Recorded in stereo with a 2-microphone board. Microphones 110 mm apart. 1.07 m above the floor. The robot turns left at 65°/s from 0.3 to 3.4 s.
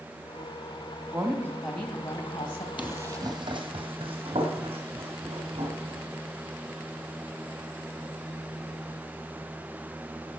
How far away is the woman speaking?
About 1.6 m.